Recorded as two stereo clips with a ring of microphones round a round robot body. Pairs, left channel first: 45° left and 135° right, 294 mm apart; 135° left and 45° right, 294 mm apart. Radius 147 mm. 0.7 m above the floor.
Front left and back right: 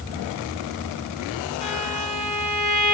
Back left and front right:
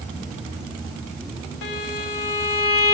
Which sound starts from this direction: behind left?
A violin, at 1.6 s.